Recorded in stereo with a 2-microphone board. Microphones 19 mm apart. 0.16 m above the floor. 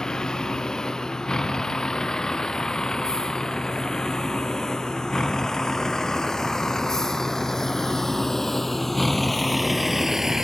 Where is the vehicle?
35° left (ahead or behind); by 10.4 s 30° right (ahead or behind).